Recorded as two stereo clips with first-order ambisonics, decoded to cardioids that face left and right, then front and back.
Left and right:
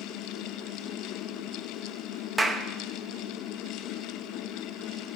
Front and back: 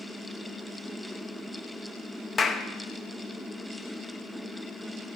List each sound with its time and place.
2.4 s a clap: 15° right, 0.7 m